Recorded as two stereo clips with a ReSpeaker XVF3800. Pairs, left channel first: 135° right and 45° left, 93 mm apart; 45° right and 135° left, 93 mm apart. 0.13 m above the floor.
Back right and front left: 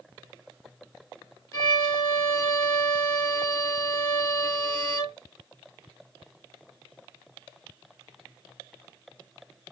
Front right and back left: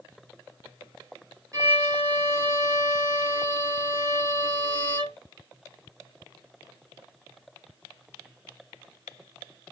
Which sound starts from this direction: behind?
A violin, at 1.5 s.